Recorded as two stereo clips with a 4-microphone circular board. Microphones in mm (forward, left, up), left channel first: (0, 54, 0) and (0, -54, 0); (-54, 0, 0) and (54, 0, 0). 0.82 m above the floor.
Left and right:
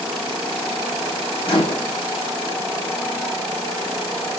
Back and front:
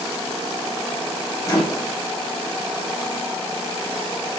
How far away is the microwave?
About 0.9 m.